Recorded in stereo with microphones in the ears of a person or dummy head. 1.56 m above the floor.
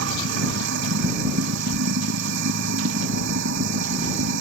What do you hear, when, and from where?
0.0 s running water: 65° right (ahead or behind)